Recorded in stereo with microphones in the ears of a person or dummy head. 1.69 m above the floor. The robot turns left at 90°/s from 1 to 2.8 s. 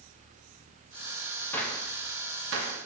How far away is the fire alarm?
I don't hear a fire alarm.